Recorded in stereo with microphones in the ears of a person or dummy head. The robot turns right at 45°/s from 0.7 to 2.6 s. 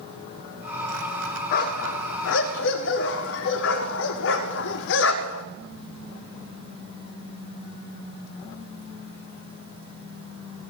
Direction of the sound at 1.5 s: 50° left (ahead or behind).